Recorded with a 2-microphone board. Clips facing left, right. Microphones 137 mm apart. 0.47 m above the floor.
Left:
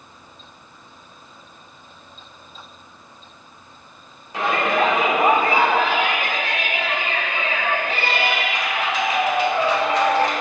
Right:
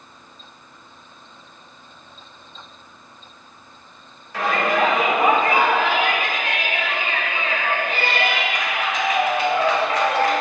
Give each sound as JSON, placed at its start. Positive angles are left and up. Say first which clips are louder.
{"t": 4.3, "sound": "a shout", "louder": "even", "side_deg": 20, "distance_m": 1.2}